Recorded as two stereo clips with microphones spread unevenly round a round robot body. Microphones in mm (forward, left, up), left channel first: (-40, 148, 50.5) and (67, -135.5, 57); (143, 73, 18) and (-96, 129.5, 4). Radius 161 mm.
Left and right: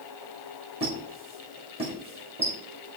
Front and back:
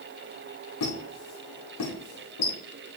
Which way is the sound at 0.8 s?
5° left.